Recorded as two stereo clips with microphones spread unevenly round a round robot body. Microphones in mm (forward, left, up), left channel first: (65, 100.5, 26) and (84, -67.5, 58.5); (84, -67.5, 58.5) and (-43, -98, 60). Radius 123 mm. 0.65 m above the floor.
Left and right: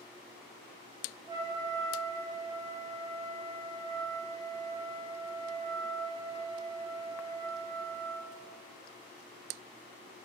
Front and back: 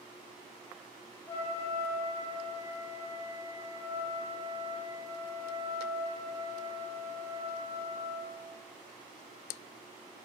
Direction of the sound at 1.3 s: 40° right.